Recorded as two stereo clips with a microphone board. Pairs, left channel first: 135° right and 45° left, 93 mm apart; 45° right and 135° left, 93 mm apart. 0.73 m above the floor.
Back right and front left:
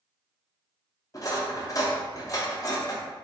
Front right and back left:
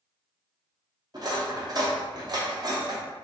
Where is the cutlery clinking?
175° left, 0.7 m.